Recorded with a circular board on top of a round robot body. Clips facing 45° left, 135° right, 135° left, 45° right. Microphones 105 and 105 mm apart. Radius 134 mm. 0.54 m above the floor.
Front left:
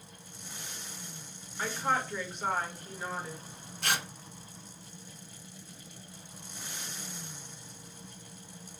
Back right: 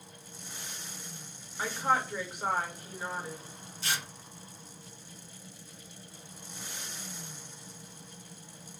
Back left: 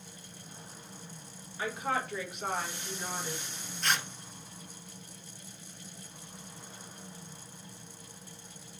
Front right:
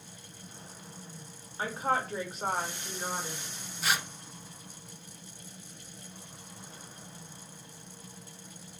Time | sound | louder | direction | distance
1.6 | a woman speaking | back right 2 dB, front right 3 dB | 65° right | 1.4 m
3.8 | tearing paper | front left 3 dB, front right 1 dB | 35° left | 0.6 m